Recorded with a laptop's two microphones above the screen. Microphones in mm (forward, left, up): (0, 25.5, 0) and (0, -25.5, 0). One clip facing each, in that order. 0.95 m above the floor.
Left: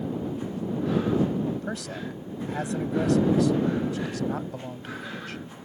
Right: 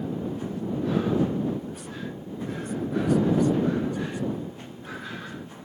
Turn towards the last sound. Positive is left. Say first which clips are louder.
# left 1 dB
turn(degrees=85)